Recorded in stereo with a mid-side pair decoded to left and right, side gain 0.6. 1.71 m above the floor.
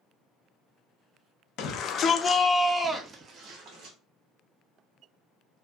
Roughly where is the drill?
I don't hear a drill.